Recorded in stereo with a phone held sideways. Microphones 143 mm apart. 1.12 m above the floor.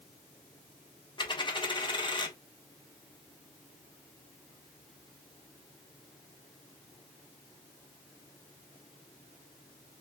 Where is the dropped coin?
35° left (ahead or behind), 0.6 m.